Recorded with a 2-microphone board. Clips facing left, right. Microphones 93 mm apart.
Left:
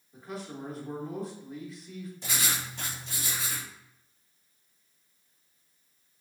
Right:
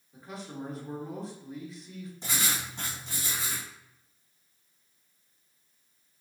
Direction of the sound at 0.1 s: Centre (ahead or behind).